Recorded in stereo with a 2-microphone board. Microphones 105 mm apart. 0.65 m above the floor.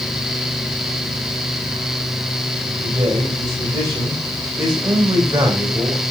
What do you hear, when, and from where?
2.8 s a man speaking: 50° right (ahead or behind), 3.5 m